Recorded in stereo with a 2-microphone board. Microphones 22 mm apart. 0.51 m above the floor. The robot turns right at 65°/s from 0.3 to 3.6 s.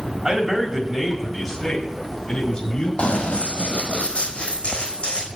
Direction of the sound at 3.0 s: 65° left (ahead or behind).